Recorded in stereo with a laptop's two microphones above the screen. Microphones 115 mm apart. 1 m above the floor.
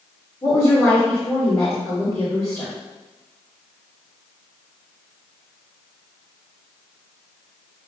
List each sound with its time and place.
0.4 s a woman speaking: 35° left (ahead or behind), 2.5 m